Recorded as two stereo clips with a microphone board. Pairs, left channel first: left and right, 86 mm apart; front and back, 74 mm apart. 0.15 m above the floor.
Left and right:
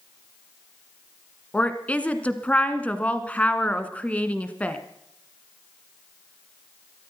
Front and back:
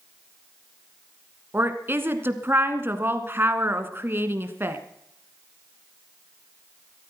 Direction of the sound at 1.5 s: 150° left.